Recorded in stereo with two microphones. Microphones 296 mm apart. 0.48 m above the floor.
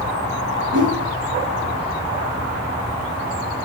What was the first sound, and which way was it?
A whoosh, 75° right (ahead or behind).